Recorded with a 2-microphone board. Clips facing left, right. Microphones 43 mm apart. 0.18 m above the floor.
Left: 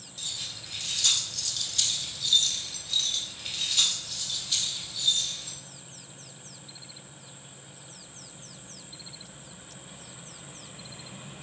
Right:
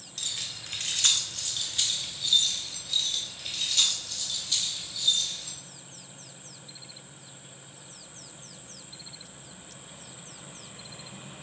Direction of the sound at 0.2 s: 65° right (ahead or behind).